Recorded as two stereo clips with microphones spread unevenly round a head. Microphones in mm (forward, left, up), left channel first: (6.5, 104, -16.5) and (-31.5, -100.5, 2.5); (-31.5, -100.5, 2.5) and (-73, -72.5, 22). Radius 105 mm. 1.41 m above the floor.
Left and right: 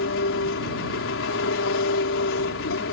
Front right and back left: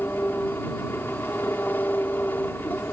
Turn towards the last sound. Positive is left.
turn(degrees=45)